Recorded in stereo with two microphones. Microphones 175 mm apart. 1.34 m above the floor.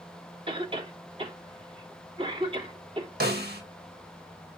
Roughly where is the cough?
Right.